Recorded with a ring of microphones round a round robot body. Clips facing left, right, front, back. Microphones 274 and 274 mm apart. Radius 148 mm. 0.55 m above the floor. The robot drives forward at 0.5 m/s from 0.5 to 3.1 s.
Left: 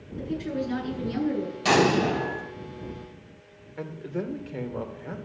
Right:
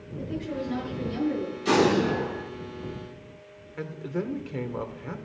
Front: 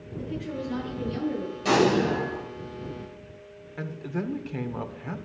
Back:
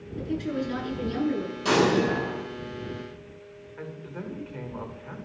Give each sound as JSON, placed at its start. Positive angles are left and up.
{"t": 0.2, "sound": "a woman speaking", "azimuth_deg": 140, "distance_m": 8.0}
{"t": 1.6, "sound": "an explosion", "azimuth_deg": 95, "distance_m": 4.5}
{"t": 3.8, "sound": "a man speaking", "azimuth_deg": -15, "distance_m": 1.8}